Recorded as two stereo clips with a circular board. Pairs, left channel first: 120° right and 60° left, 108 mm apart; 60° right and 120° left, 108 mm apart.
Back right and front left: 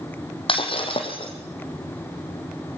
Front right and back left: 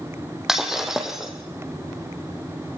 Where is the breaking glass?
155° right, 5 m.